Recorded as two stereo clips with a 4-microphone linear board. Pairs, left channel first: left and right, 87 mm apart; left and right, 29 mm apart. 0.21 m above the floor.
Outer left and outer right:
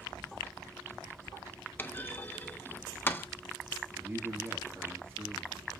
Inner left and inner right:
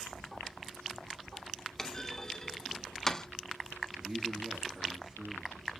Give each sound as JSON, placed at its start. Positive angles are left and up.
{"t": 1.8, "sound": "a clunk", "side_deg": 25, "distance_m": 0.7}
{"t": 4.0, "sound": "a man speaking", "side_deg": -25, "distance_m": 4.0}